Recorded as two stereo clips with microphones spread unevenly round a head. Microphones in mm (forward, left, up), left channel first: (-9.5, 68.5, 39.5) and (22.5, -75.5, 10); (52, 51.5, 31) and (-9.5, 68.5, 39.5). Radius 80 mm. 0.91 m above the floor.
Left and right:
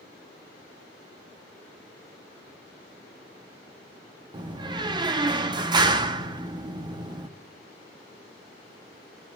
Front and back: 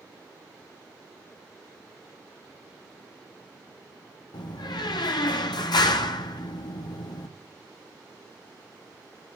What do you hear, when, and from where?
4.3 s a door slam: 15° right, 0.7 m